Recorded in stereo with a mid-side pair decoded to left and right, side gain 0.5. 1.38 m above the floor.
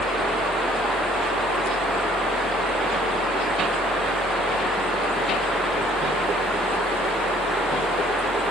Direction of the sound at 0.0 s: 40° left.